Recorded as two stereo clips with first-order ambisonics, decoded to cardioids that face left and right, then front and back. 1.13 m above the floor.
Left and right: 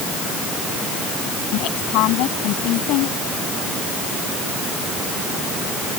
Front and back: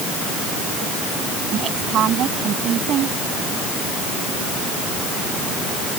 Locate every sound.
1.5 s a woman speaking: 125° left